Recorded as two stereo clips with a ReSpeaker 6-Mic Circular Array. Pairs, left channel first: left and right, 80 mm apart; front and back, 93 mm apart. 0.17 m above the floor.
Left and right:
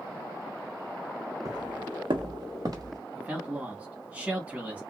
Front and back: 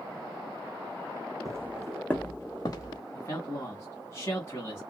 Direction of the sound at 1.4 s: 130° right.